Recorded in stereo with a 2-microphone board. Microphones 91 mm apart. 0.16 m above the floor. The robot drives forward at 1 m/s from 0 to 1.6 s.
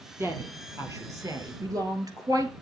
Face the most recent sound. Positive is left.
turn(degrees=-45)  # may be behind; listen again after turning